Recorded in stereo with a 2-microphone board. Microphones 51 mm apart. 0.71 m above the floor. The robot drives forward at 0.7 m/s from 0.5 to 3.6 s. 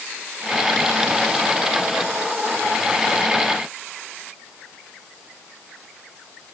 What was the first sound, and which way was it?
Only background noise.